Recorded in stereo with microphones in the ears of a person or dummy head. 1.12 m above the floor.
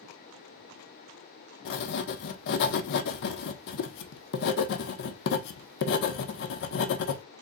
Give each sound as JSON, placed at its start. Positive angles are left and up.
{"t": 1.6, "sound": "writing", "side_deg": 55, "distance_m": 0.7}